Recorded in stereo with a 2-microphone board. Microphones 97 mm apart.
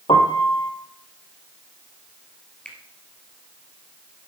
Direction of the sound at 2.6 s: 10° left (ahead or behind).